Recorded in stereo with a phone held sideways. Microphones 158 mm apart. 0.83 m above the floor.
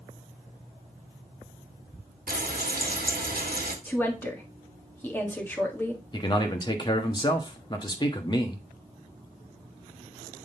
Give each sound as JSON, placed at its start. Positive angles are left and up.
{"t": 2.3, "sound": "frying", "side_deg": -70, "distance_m": 1.2}
{"t": 3.9, "sound": "a woman speaking", "side_deg": 15, "distance_m": 1.6}
{"t": 6.1, "sound": "a man speaking", "side_deg": 30, "distance_m": 1.2}